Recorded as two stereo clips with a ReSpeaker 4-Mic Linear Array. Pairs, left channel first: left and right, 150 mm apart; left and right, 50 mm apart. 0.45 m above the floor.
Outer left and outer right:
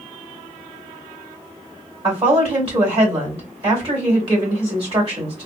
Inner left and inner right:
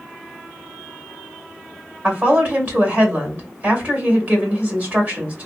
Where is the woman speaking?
40° right (ahead or behind), 2.0 m.